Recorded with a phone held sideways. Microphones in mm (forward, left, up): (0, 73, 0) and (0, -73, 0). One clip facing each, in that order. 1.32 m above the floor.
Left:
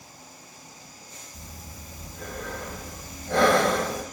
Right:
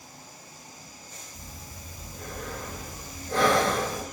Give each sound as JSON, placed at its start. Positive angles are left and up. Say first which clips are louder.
{"t": 1.3, "sound": "breathing", "louder": "left 2 dB", "side_deg": 75, "distance_m": 1.1}